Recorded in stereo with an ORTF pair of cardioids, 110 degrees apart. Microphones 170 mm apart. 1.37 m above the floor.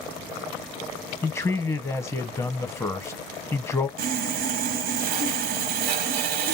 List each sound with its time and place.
1.2 s a man speaking: 15° left, 0.7 m
4.0 s sawing: 65° right, 0.6 m